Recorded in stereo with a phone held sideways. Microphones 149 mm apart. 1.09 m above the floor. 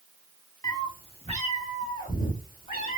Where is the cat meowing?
25° left (ahead or behind), 0.9 m; by 3.0 s 75° left (ahead or behind), 1.8 m.